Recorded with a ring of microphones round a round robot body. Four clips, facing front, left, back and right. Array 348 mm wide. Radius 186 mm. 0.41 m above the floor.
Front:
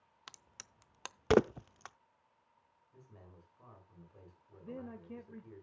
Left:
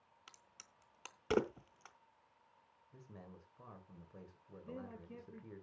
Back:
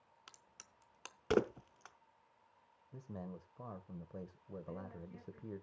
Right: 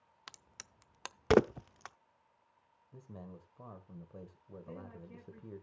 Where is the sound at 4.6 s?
10° left, 1.7 m.